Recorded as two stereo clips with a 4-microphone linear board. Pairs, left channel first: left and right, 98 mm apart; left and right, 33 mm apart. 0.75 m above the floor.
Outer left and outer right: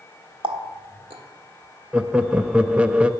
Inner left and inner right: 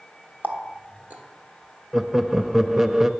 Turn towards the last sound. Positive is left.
turn(degrees=-10)  # may be behind; listen again after turning